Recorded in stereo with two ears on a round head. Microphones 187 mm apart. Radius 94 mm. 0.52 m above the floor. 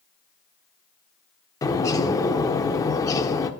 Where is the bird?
15° left (ahead or behind), 0.5 m.